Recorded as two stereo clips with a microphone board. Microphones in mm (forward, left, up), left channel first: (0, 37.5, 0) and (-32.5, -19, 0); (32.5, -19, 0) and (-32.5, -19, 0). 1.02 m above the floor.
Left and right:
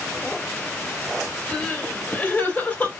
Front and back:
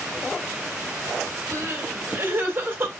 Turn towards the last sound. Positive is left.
turn(degrees=125)